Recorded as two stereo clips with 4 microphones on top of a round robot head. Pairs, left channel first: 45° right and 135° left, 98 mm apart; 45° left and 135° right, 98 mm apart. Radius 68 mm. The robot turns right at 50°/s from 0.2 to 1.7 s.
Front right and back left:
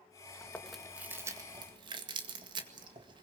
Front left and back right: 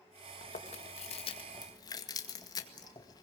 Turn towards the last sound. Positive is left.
turn(degrees=95)